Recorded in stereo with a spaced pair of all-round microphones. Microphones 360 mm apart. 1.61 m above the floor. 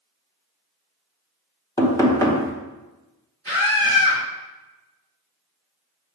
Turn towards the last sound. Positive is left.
turn(degrees=-15)  # may be behind; listen again after turning